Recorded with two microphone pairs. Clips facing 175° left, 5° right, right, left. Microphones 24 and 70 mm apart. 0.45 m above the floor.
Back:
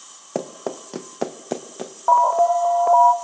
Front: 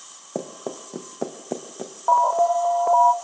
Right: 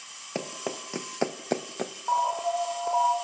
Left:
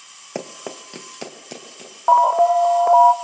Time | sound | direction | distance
0.3 | running footsteps | 160° left | 1.4 m
2.1 | an alarm | 105° left | 0.7 m